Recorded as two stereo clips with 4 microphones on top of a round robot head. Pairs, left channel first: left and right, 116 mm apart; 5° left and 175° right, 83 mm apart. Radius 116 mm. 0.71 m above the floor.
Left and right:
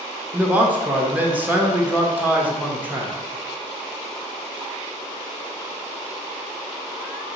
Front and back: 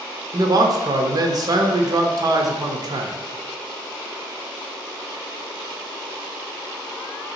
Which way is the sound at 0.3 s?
160° right.